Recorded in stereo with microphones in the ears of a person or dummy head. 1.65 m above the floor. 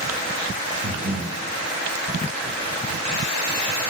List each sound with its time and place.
0.8 s breathing: 85° right, 1.9 m